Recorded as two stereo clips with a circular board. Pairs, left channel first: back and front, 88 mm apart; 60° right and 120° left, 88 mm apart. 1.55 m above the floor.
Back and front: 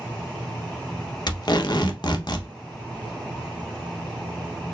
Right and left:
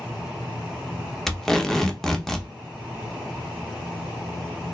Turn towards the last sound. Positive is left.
turn(degrees=-145)